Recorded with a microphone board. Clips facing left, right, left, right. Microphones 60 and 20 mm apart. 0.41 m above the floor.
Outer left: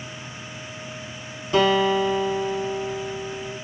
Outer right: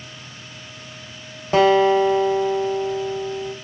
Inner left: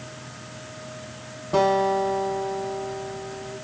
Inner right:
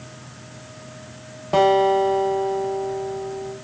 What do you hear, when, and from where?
1.5 s a guitar: 40° right (ahead or behind), 1.6 m